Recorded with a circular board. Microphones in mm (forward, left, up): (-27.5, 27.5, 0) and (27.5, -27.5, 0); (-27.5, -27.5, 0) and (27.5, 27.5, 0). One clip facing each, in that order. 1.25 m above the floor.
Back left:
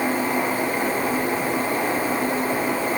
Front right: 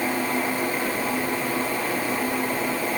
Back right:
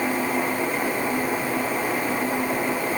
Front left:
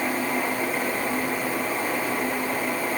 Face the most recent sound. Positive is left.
No sound to turn to.